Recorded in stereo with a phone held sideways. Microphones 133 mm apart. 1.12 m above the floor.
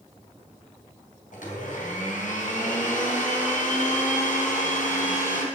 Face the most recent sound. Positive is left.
turn(degrees=75)  # may be behind; listen again after turning